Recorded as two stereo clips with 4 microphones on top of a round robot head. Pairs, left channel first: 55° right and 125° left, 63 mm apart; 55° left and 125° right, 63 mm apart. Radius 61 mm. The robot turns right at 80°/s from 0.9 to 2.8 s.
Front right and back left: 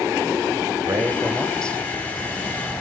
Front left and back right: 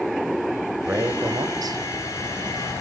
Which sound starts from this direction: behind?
A man speaking, at 0.8 s.